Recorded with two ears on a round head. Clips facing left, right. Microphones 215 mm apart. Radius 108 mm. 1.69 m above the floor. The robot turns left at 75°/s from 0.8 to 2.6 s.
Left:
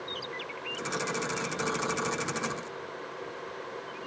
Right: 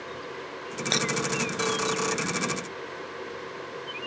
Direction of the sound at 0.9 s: 85° right.